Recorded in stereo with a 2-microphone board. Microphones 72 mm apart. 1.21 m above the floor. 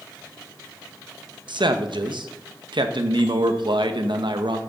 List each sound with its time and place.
1.5 s a man speaking: 80° right, 1.0 m